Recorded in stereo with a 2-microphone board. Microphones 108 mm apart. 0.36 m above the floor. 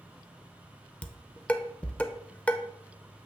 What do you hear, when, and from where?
1.0 s dishes clattering: 10° left (ahead or behind), 0.5 m